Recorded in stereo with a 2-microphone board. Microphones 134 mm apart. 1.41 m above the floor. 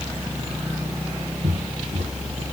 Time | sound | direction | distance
1.4 | footsteps | 70° right (ahead or behind) | 4 m